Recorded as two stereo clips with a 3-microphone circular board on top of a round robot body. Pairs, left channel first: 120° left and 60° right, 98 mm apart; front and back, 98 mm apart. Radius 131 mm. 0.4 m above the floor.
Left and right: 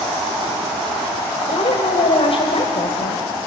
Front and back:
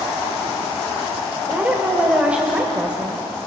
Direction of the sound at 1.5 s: 100° left.